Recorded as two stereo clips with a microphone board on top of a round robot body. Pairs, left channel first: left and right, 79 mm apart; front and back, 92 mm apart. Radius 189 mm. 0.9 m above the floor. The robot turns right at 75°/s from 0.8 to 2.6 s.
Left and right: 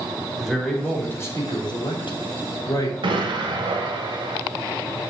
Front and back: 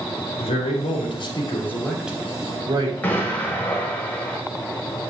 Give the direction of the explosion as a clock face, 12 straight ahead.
2 o'clock.